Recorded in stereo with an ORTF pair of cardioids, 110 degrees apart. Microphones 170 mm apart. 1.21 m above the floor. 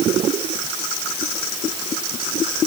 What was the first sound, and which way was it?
Only background noise.